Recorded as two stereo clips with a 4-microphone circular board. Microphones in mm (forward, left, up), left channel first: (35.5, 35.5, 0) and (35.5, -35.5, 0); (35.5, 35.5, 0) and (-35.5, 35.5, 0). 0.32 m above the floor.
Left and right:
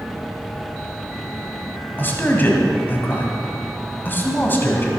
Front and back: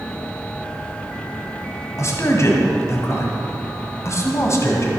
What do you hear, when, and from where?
2.0 s a man speaking: 35° left, 1.7 m